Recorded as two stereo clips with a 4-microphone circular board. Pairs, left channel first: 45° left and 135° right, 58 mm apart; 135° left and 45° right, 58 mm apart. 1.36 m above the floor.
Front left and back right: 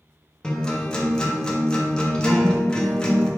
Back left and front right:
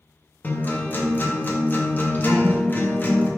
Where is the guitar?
110° left, 0.8 m.